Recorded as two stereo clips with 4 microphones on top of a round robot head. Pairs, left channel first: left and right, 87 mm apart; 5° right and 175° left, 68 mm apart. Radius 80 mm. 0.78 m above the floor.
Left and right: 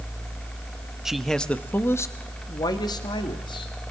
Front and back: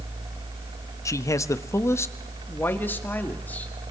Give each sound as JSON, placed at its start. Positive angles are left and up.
{"t": 1.1, "sound": "a man speaking", "azimuth_deg": -10, "distance_m": 0.9}